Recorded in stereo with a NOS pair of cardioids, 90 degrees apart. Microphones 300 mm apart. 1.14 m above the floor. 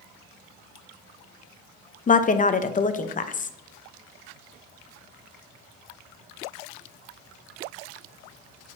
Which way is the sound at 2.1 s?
25° left.